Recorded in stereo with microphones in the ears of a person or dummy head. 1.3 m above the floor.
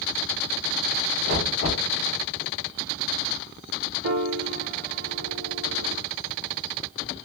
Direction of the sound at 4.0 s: 75° right (ahead or behind).